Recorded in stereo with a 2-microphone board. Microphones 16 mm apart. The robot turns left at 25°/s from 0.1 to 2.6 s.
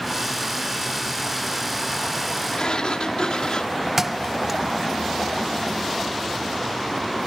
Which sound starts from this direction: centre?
A thud, at 4.0 s.